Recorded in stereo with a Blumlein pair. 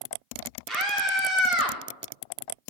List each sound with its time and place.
0.7 s a scream: 15° right, 4 m; by 1.8 s 5° right, 4 m